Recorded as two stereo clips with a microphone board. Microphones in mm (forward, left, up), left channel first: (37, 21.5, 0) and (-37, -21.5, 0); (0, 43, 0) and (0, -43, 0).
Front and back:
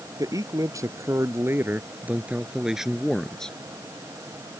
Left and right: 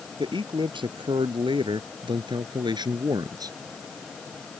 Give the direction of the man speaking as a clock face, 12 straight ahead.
4 o'clock.